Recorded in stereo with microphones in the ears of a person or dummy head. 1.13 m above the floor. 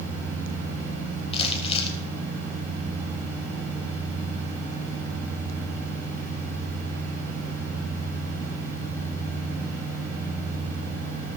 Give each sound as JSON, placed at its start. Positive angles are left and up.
{"t": 1.3, "sound": "crumpling", "side_deg": 35, "distance_m": 3.0}